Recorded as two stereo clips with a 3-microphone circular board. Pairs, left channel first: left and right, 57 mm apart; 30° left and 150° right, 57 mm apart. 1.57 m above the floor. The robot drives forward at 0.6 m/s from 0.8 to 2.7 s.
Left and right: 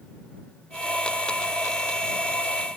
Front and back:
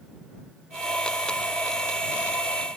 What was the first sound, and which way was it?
Only background noise.